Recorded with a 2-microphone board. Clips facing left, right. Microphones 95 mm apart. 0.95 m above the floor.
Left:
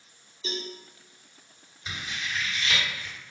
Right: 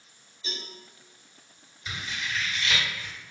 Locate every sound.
0.4 s a cowbell: 70° left (ahead or behind), 0.8 m
1.9 s scissors: 25° left (ahead or behind), 1.7 m